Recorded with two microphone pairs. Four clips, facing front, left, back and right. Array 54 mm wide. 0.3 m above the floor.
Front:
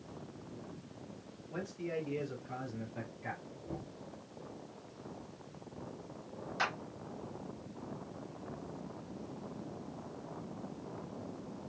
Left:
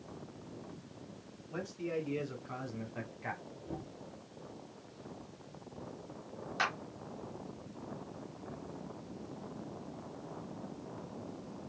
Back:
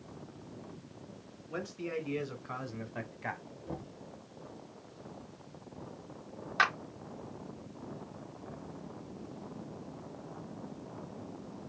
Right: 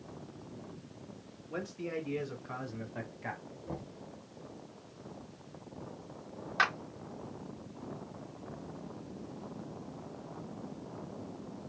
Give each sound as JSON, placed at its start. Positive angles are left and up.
{"t": 1.5, "sound": "a man speaking", "azimuth_deg": -160, "distance_m": 3.0}
{"t": 3.7, "sound": "knocking", "azimuth_deg": -130, "distance_m": 2.0}
{"t": 6.6, "sound": "a clap", "azimuth_deg": -150, "distance_m": 3.0}